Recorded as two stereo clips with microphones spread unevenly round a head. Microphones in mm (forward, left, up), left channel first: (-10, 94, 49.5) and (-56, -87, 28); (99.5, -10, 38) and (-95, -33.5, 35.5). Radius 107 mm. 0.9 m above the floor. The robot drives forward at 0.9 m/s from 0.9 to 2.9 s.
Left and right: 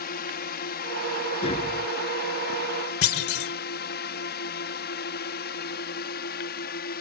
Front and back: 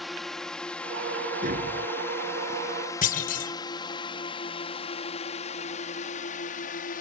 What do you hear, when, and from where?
0.0 s a drone: 95° left; by 7.0 s 45° left
1.4 s tapping: 135° left
3.0 s a clunk: 60° left